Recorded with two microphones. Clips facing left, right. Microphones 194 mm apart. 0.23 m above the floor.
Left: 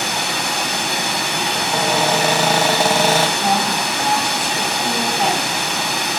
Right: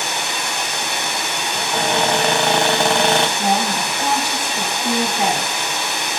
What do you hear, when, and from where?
0.0 s running water: 60° left (ahead or behind), 0.9 m
1.6 s a cupboard door: 5° left (ahead or behind), 0.6 m
3.4 s a woman speaking: 5° right (ahead or behind), 1.9 m